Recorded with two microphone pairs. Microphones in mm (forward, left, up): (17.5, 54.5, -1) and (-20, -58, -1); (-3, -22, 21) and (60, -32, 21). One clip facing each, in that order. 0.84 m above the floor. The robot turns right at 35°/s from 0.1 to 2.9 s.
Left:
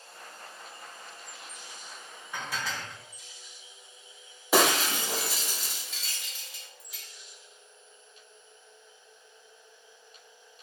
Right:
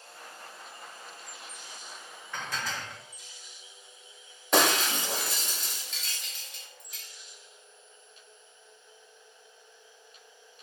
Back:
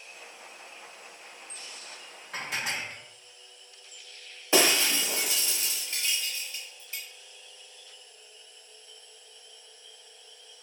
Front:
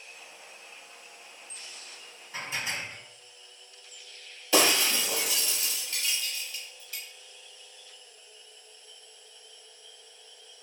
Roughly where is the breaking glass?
Behind left.